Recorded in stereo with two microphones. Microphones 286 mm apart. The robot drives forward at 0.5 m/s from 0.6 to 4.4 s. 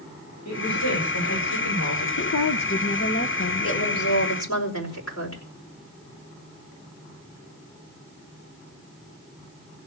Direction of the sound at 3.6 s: 50° left (ahead or behind).